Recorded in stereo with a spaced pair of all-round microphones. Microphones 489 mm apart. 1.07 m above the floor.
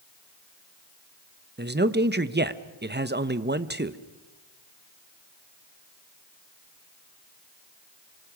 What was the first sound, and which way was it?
A man speaking, 20° right (ahead or behind).